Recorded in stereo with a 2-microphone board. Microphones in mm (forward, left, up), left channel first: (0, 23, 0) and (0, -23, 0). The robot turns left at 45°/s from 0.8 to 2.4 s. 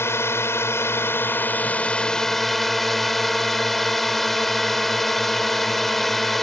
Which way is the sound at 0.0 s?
75° left.